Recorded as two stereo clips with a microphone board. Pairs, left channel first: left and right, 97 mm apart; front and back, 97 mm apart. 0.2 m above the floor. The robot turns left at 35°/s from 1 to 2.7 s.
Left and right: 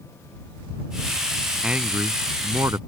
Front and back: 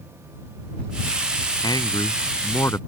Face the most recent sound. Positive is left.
turn(degrees=-50)